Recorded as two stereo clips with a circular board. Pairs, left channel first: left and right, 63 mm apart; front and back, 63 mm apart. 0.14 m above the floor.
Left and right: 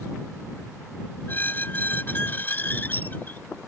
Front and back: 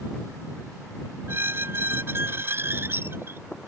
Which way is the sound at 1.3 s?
140° left.